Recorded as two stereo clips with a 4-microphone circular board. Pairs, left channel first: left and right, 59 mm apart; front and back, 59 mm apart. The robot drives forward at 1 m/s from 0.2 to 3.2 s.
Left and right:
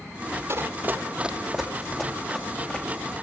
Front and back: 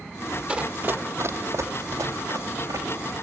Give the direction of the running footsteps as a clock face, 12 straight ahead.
4 o'clock.